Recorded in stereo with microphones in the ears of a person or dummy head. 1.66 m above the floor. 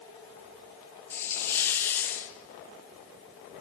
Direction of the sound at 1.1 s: 15° left (ahead or behind).